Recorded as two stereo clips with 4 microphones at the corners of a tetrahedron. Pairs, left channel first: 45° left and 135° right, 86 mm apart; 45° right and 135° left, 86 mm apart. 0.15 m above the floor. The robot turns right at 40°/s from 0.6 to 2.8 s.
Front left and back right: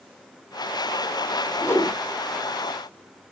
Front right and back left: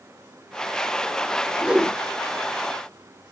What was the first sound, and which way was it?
A whoosh, 60° left.